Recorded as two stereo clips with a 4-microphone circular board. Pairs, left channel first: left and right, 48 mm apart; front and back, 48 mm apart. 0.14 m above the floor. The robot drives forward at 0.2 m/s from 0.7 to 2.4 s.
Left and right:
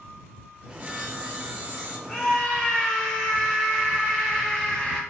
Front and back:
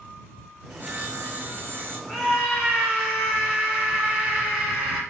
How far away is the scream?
About 1.3 m.